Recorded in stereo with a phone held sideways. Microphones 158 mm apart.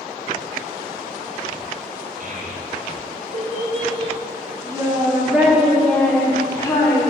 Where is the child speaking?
65° right (ahead or behind), 3 m; by 7.1 s 30° left (ahead or behind), 2.5 m.